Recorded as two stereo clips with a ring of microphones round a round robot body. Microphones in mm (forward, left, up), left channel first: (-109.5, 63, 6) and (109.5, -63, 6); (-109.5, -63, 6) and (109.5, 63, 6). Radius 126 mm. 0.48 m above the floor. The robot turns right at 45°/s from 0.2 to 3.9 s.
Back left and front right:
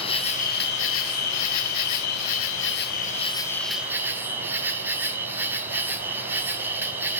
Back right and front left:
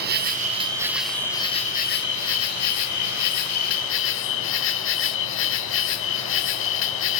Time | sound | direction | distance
0.0 | an insect | 80° left | 1.1 m